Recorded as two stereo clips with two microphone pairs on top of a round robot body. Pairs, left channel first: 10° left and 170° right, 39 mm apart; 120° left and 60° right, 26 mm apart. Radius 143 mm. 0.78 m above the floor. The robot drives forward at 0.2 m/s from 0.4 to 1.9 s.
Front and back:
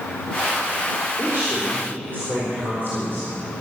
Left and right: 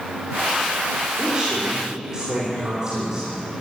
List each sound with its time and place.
1.2 s a woman speaking: 130° right, 4 m